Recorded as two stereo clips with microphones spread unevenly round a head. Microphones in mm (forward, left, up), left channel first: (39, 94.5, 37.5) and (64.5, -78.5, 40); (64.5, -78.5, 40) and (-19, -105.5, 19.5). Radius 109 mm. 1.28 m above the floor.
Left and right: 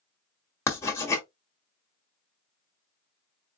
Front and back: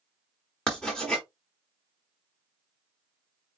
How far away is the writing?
About 0.9 m.